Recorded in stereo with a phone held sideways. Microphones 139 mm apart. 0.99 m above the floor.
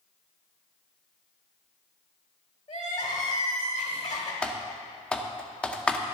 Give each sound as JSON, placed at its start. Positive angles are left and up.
{"t": 2.7, "sound": "crying", "side_deg": 60, "distance_m": 1.5}
{"t": 4.4, "sound": "typing on a keyboard", "side_deg": 5, "distance_m": 0.6}